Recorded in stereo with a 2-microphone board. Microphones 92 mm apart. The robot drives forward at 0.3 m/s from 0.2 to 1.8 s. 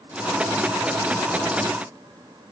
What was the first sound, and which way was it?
Only background noise.